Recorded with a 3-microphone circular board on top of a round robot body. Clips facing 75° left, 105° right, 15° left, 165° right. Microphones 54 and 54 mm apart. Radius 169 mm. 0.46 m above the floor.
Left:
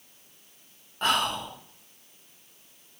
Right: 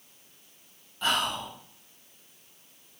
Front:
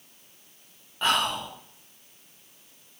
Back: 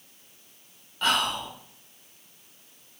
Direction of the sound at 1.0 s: 75° left.